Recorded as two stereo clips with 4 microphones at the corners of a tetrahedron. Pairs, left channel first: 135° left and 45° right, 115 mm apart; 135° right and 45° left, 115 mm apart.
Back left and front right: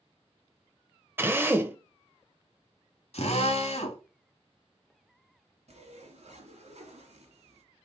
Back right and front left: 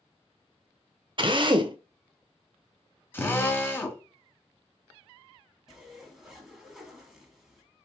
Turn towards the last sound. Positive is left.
turn(degrees=-40)